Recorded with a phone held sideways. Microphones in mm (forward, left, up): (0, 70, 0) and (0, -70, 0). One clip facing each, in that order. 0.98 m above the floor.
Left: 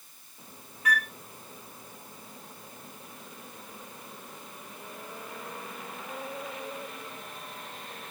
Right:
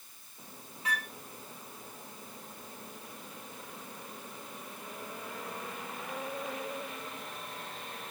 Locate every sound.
0.8 s a flute: 25° right (ahead or behind), 0.8 m